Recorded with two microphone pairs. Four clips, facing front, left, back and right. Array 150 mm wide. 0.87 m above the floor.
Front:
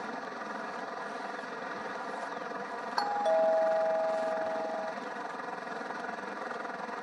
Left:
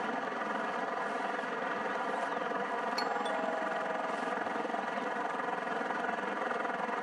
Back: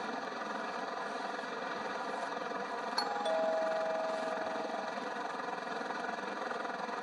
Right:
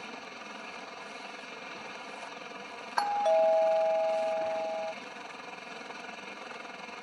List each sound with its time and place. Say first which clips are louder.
0.0 s a helicopter: left 9 dB, even; 90° left
3.0 s a doorbell: right 14 dB, front 7 dB; 65° right